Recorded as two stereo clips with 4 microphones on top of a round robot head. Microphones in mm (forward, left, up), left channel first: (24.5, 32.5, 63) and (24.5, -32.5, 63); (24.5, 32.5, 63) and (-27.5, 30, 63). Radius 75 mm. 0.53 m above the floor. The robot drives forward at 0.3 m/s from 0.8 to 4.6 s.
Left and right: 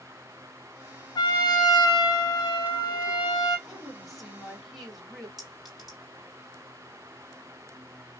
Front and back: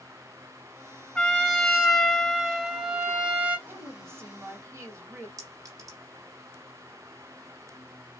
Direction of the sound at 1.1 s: 75° left.